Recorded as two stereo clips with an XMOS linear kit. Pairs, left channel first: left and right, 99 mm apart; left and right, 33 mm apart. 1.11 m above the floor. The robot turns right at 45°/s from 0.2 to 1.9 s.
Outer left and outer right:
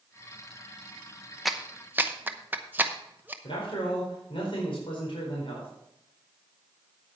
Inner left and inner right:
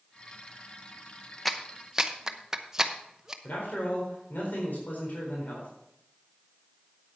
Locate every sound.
1.4 s a clap: centre (ahead or behind), 0.7 m; by 3.3 s 20° right (ahead or behind), 0.7 m
3.4 s a man speaking: 60° left (ahead or behind), 4 m